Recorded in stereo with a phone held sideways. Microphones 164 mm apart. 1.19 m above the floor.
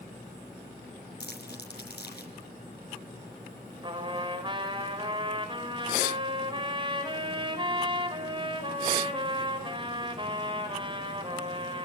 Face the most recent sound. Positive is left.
turn(degrees=-30)  # may be behind; listen again after turning